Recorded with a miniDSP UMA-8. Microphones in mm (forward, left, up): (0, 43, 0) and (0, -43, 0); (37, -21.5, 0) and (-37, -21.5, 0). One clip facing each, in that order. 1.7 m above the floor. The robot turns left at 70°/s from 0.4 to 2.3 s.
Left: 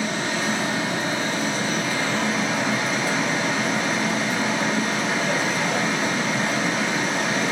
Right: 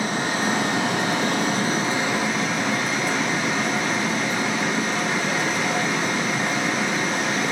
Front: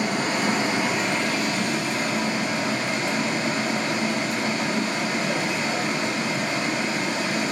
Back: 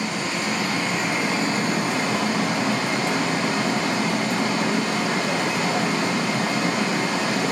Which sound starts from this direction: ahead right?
Running water, at 0.0 s.